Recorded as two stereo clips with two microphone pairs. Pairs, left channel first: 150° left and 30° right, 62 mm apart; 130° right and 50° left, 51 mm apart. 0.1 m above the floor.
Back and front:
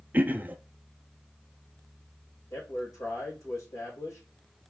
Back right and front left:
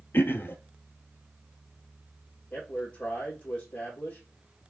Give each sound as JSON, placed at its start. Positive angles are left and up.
{"t": 0.1, "sound": "throat clearing", "azimuth_deg": -90, "distance_m": 0.6}
{"t": 2.5, "sound": "a man speaking", "azimuth_deg": 175, "distance_m": 3.5}